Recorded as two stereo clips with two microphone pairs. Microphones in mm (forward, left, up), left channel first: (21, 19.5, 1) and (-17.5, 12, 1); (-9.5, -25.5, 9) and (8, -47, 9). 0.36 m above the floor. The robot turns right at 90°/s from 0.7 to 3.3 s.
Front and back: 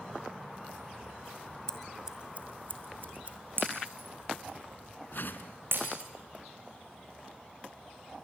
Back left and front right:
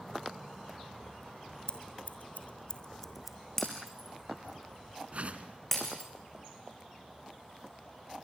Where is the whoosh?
15° right, 1.7 m.